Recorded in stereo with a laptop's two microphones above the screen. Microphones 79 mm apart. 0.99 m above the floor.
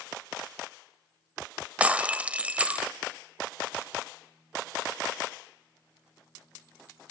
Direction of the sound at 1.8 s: 15° right (ahead or behind).